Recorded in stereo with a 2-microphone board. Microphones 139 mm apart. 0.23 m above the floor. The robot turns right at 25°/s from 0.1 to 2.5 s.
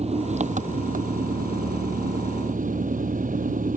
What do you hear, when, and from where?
0.0 s an engine running: 130° right; by 3.8 s 70° right